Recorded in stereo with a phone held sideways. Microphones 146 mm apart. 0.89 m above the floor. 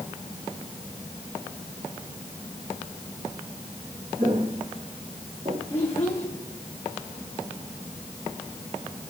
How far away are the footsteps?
About 3 m.